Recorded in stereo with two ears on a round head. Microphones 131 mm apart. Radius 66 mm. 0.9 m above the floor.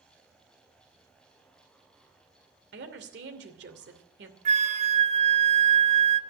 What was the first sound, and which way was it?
A woman speaking, 85° right.